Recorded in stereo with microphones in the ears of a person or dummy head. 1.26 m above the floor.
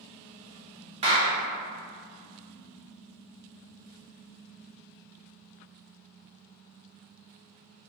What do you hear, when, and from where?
1.0 s a clap: 30° right (ahead or behind), 0.8 m